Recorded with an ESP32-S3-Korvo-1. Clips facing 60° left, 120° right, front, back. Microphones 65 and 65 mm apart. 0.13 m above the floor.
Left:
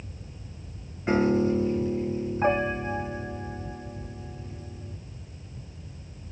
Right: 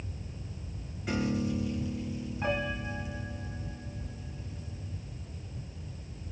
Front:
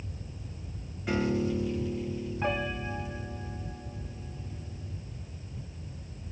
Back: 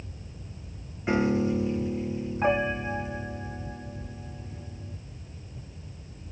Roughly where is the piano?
Behind left.